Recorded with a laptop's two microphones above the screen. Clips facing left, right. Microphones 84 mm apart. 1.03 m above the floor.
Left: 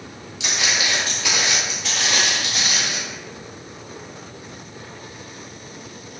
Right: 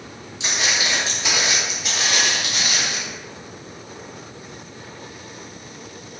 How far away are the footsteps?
About 1.2 m.